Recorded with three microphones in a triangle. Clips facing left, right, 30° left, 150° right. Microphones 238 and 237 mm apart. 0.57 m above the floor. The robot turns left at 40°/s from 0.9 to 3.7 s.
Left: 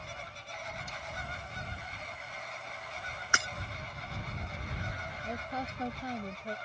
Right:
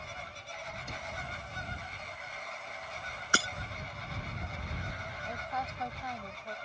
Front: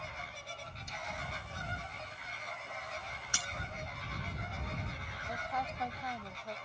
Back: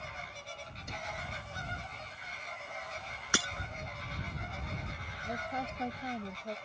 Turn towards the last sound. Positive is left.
turn(degrees=150)